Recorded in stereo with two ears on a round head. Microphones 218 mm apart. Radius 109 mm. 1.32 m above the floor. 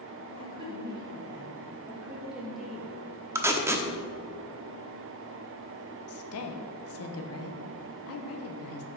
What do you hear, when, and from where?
0.4 s a woman speaking: 20° right (ahead or behind), 2.5 m; by 2.9 s 5° left (ahead or behind), 1.7 m
3.4 s tape being pulled: 10° right (ahead or behind), 0.9 m
6.1 s a woman speaking: 65° left (ahead or behind), 1.1 m